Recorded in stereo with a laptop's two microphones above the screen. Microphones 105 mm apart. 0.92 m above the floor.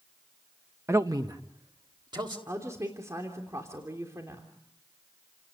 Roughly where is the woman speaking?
Right.